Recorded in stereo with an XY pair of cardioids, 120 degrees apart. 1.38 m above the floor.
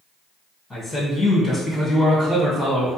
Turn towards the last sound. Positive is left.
turn(degrees=20)